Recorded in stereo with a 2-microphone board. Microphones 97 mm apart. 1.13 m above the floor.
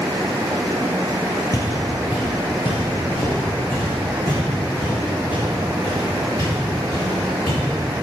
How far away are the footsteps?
About 1.6 m.